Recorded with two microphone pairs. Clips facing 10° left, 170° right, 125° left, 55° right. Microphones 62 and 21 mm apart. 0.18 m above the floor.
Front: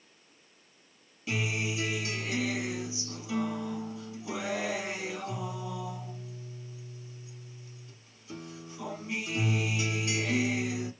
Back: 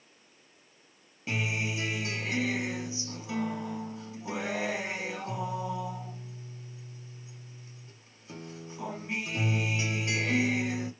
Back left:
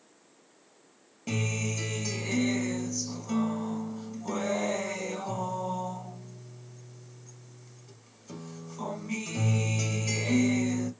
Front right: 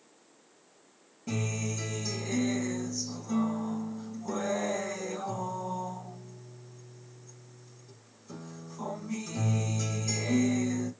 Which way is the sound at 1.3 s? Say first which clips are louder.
Even, back left 2 dB; 145° left.